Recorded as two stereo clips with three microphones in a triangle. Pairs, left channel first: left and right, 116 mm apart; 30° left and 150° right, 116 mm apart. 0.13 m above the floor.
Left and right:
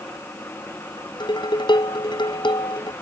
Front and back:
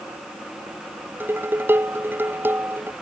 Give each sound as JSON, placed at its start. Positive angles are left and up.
{"t": 1.2, "sound": "dishes clattering", "azimuth_deg": 140}